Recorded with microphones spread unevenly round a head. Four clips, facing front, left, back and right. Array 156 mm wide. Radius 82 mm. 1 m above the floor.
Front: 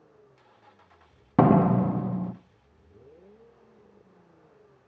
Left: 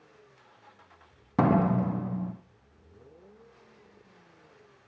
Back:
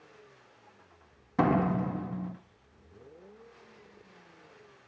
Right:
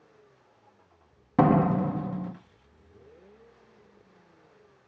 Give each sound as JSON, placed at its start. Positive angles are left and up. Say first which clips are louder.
{"t": 1.4, "sound": "a door slam", "louder": "right 2 dB, front 7 dB", "azimuth_deg": -10, "distance_m": 1.1}